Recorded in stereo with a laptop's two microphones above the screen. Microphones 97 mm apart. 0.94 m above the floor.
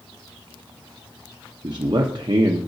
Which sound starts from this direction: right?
A man speaking, at 1.6 s.